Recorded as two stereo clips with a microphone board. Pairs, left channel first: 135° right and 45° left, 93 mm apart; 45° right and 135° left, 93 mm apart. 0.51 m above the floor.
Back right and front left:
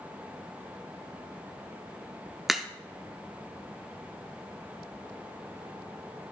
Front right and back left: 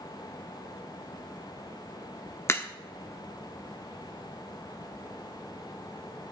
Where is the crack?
40° right, 0.7 m.